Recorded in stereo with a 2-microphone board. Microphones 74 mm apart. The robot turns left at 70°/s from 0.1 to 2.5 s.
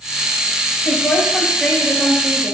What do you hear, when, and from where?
0.8 s a woman speaking: 75° left, 4 m; by 2.5 s 40° right, 4 m